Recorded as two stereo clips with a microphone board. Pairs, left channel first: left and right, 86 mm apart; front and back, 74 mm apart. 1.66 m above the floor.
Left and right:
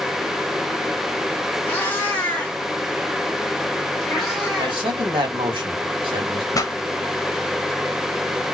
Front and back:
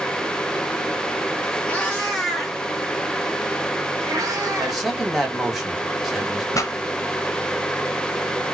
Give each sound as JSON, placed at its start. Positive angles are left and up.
{"t": 1.7, "sound": "a cat meowing", "azimuth_deg": 55, "distance_m": 1.1}
{"t": 4.6, "sound": "a man speaking", "azimuth_deg": -90, "distance_m": 1.7}
{"t": 6.5, "sound": "a pop", "azimuth_deg": 45, "distance_m": 0.6}